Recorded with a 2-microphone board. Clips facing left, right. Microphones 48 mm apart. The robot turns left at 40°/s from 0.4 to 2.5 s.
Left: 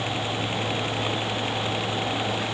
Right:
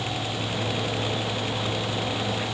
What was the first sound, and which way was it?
Only background noise.